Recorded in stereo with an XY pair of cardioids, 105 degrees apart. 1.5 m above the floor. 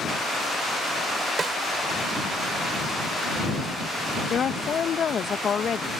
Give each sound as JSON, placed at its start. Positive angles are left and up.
{"t": 1.4, "sound": "a snare drum", "azimuth_deg": -40}
{"t": 4.3, "sound": "a woman speaking", "azimuth_deg": 45}